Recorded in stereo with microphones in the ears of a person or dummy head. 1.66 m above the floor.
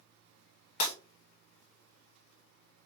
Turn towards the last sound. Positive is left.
turn(degrees=55)  # may be behind; listen again after turning